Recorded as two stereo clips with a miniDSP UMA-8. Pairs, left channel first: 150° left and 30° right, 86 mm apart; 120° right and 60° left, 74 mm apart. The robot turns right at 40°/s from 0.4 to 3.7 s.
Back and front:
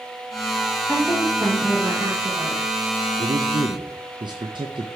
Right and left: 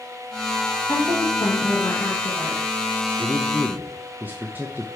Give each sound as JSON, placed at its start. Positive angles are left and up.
{"t": 0.9, "sound": "a woman speaking", "azimuth_deg": -115, "distance_m": 1.7}
{"t": 3.2, "sound": "a man speaking", "azimuth_deg": -25, "distance_m": 0.5}